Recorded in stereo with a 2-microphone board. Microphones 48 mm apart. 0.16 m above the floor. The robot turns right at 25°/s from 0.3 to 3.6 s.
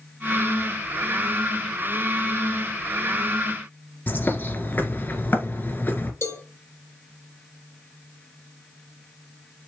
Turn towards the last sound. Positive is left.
turn(degrees=55)  # may be behind; listen again after turning